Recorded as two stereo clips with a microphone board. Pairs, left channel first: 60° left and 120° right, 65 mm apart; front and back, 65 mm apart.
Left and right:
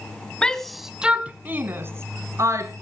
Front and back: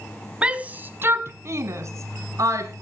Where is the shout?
125° left, 1.0 m; by 2.8 s 150° right, 2 m.